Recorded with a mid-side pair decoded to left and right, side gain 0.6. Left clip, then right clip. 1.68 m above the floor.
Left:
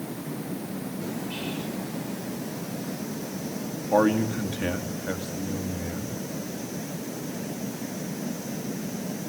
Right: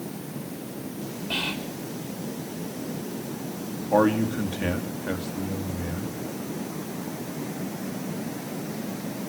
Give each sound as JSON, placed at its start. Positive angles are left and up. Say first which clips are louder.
{"t": 1.3, "sound": "whispering", "louder": "right 5 dB", "azimuth_deg": -50, "distance_m": 6.0}
{"t": 3.9, "sound": "a man speaking", "louder": "right 1 dB", "azimuth_deg": -5, "distance_m": 3.5}